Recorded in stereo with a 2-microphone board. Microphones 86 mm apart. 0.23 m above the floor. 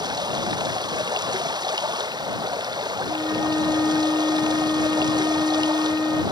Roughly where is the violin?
Left.